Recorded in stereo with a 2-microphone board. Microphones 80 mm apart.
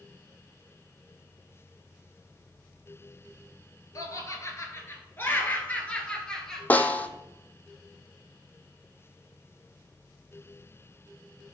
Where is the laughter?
45° left (ahead or behind), 1.7 m; by 6.6 s 5° left (ahead or behind), 1.7 m.